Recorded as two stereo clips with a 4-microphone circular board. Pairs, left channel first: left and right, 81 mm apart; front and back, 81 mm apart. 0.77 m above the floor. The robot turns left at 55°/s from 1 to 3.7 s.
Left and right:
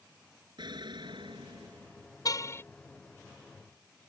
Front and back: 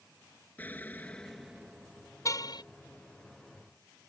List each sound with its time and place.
0.6 s an explosion: 70° right; by 2.1 s 130° right
2.2 s a car horn: 50° left; by 2.6 s 30° left